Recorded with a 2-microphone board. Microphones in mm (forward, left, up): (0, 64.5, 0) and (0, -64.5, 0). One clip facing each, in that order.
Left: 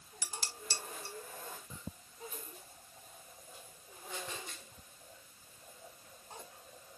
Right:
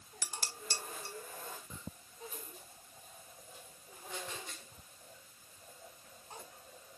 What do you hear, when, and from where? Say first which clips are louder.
0.2 s dishes clattering: right 1 dB; 50° right (ahead or behind), 0.9 m